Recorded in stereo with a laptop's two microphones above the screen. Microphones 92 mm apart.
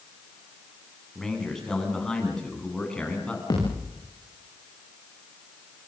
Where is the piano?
I don't hear a piano.